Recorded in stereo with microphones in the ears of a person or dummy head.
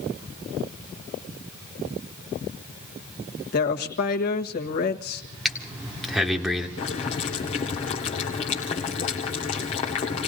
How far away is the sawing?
No sawing in this recording.